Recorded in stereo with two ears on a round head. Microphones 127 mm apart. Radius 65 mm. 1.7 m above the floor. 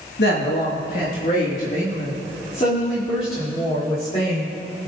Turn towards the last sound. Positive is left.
turn(degrees=35)  # may be behind; listen again after turning